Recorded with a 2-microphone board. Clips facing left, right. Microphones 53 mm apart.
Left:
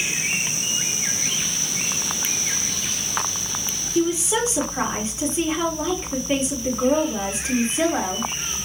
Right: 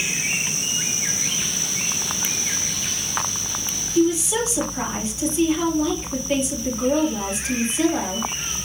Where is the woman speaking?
25° left (ahead or behind), 1.9 m.